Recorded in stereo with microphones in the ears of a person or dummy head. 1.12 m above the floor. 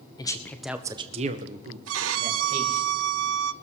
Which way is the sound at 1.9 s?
85° right.